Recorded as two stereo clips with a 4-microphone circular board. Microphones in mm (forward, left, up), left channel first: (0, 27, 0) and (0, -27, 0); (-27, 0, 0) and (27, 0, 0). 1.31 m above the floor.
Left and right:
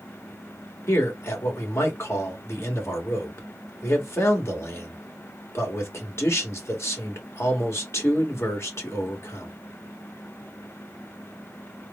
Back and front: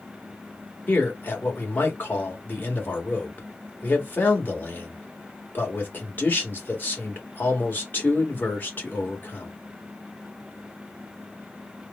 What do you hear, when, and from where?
0.9 s a man speaking: 125° left, 1.6 m